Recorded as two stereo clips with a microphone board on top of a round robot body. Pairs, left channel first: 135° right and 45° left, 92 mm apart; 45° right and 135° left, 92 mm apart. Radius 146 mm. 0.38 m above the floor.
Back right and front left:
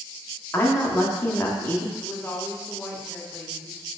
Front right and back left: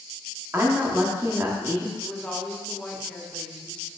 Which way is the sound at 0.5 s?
170° left.